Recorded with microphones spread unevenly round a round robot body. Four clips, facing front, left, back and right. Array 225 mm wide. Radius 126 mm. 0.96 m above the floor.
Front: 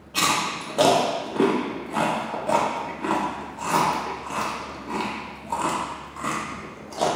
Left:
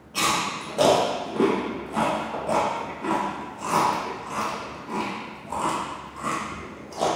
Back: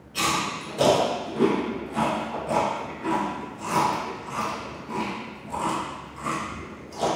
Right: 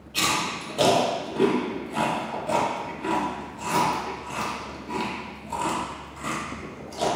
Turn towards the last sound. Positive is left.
turn(degrees=40)